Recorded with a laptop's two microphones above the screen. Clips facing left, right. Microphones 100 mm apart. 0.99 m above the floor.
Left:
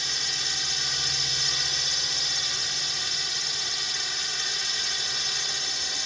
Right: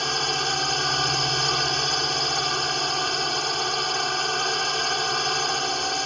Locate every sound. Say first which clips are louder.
0.0 s a drone: right 12 dB; 60° right (ahead or behind)